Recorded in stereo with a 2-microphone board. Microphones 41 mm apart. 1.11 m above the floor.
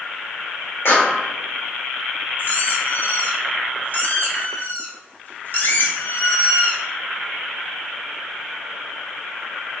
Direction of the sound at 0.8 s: 70° left (ahead or behind).